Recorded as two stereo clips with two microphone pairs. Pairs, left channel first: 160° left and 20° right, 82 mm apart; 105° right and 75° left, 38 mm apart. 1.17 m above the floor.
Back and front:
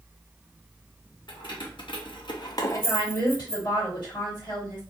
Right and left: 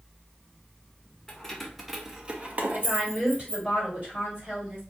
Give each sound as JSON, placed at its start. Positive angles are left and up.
{"t": 1.3, "sound": "keys jangling", "azimuth_deg": 180, "distance_m": 0.9}
{"t": 2.7, "sound": "a woman speaking", "azimuth_deg": 125, "distance_m": 1.8}